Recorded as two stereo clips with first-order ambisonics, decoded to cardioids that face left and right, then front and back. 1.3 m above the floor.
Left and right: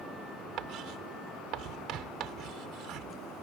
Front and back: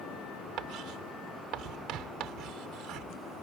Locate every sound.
0.6 s writing: 135° right